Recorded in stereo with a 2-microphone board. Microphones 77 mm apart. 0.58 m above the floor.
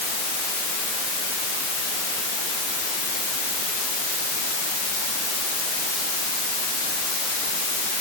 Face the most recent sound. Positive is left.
No sound to turn to.